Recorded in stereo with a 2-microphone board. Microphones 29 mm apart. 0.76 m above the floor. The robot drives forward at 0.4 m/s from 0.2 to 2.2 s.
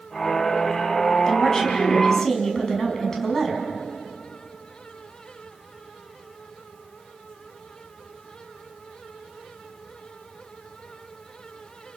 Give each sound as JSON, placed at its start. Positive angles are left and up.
{"t": 1.3, "sound": "a woman speaking", "side_deg": 15, "distance_m": 5.0}